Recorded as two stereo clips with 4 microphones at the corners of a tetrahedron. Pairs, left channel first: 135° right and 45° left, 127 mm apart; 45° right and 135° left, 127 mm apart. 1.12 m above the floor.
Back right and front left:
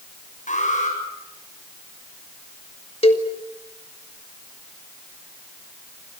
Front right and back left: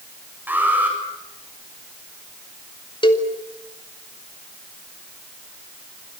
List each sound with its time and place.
0.5 s an alarm: 150° right, 8 m
3.0 s a cowbell: 95° right, 2 m